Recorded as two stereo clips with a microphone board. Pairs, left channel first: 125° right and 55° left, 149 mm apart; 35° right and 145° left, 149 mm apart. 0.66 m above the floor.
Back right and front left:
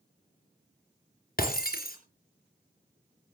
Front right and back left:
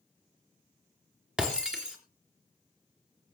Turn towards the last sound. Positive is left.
turn(degrees=-130)